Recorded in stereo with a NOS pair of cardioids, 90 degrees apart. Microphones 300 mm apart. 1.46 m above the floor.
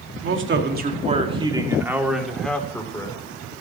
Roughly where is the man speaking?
Ahead right.